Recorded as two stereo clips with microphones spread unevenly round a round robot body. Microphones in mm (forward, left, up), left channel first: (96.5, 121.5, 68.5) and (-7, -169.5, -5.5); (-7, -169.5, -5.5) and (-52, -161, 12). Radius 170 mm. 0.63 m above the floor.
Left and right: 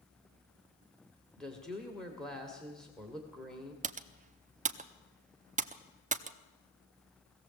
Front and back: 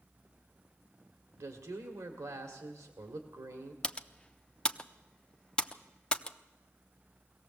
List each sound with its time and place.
1.4 s a woman speaking: 160° left, 1.9 m
3.8 s typing on a keyboard: 60° right, 0.9 m